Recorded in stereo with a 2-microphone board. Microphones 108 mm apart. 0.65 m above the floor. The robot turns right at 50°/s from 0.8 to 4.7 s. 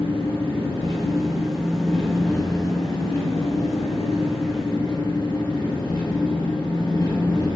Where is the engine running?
55° right, 0.8 m; by 7.6 s 140° left, 0.8 m.